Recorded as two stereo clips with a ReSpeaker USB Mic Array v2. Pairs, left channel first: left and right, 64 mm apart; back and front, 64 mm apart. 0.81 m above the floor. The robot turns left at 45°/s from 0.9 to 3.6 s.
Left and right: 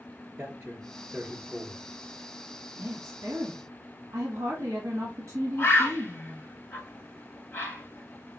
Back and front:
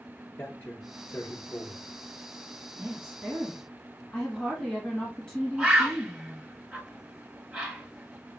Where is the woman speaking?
65° right, 1.3 m; by 6.4 s 105° right, 1.3 m.